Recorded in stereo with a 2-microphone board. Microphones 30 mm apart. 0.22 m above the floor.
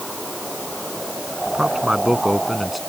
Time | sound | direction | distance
1.5 | a man speaking | 35° right (ahead or behind) | ?